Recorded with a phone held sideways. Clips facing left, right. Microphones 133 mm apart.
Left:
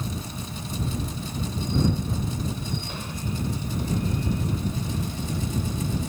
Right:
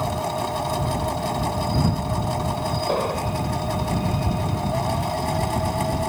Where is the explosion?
65° right (ahead or behind).